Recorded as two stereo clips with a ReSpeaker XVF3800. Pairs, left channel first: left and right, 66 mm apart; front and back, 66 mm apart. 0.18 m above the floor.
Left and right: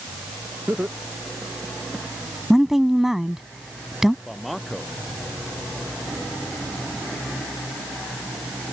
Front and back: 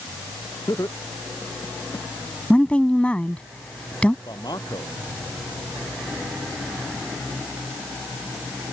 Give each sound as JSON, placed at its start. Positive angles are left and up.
{"t": 0.7, "sound": "laughter", "azimuth_deg": -30}
{"t": 2.5, "sound": "a woman speaking", "azimuth_deg": -15}
{"t": 4.2, "sound": "a man speaking", "azimuth_deg": 0}